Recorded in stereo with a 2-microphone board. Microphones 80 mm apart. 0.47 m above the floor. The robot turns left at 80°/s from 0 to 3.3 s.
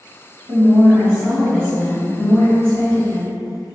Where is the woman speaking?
100° right, 1.5 m; by 3.4 s 35° left, 1.5 m.